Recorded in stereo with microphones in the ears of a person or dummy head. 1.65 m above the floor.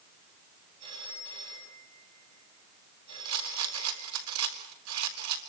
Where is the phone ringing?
25° right (ahead or behind), 8 m.